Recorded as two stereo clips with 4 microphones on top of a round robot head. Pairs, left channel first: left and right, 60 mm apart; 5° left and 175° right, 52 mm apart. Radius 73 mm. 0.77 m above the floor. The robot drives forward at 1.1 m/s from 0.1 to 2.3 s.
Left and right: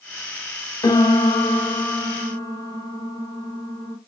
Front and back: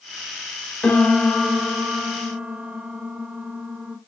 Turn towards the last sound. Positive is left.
turn(degrees=125)